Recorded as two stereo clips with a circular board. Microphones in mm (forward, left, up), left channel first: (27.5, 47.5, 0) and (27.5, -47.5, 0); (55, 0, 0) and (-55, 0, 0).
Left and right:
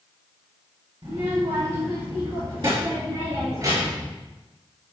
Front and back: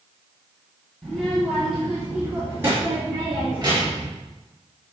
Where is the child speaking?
90° right, 3.5 m; by 4.1 s 130° right, 3.5 m.